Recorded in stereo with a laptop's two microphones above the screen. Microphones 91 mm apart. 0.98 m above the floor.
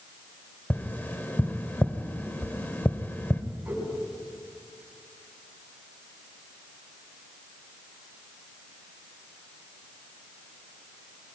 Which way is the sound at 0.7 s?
20° left (ahead or behind).